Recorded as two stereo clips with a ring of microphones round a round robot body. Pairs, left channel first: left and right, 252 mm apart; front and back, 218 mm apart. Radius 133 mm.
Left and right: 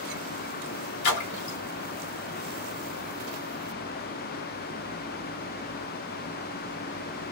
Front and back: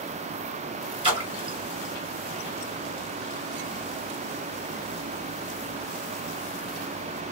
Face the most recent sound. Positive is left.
turn(degrees=115)